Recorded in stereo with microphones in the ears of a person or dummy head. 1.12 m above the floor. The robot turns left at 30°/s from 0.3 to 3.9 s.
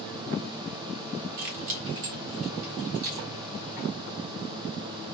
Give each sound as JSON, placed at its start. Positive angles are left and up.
{"t": 1.4, "sound": "keys jangling", "side_deg": -60, "distance_m": 1.3}